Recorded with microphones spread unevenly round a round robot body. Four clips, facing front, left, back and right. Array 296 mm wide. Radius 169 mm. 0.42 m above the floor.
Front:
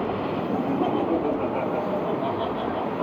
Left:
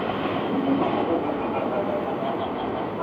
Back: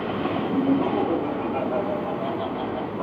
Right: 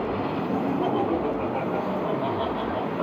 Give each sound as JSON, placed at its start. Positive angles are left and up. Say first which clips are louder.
{"t": 0.5, "sound": "laughter", "louder": "left 2 dB, back 3 dB", "azimuth_deg": -135, "distance_m": 3.5}